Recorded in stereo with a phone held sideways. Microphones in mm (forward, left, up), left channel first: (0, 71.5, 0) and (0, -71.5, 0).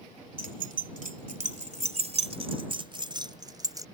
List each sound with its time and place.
0.4 s keys jangling: 80° right; by 3.9 s 25° right (ahead or behind)